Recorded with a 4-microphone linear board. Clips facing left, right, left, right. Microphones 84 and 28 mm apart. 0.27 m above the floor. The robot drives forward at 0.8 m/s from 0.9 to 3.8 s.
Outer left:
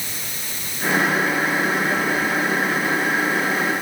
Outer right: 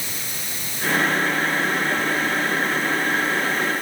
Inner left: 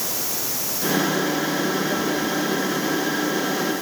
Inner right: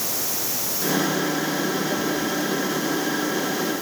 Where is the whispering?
No whispering in this recording.